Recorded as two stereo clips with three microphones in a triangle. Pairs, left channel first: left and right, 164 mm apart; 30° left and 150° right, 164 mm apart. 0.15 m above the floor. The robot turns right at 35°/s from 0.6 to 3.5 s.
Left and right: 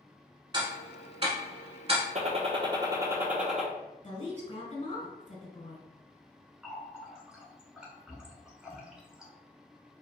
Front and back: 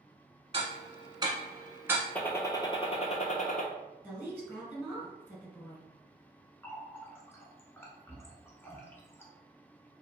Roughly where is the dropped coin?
I don't hear a dropped coin.